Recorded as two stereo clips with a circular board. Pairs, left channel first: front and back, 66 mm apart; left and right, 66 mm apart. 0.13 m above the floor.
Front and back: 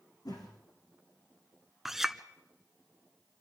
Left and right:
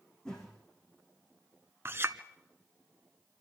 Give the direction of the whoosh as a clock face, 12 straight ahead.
12 o'clock.